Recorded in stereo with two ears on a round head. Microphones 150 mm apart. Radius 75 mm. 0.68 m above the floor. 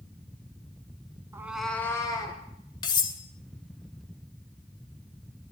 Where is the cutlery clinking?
30° left (ahead or behind), 1.1 m.